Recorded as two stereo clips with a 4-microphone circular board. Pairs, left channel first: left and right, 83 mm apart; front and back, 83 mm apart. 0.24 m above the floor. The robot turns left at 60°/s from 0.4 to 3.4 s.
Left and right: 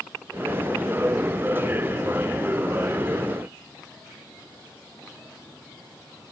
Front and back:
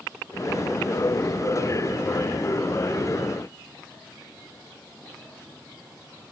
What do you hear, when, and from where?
Only background noise.